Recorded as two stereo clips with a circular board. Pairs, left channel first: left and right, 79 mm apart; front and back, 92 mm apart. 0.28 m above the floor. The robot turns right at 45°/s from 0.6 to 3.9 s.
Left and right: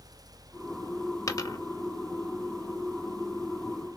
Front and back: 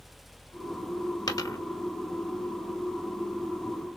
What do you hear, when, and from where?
1.3 s a dropped coin: 40° left, 0.7 m; by 1.6 s 55° left, 0.7 m